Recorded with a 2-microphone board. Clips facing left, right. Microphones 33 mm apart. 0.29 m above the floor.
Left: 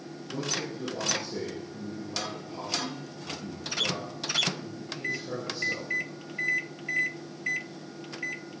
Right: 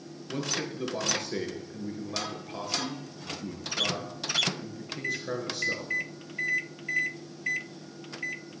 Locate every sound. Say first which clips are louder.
0.3 s a man speaking: right 1 dB; 75° right (ahead or behind), 3.5 m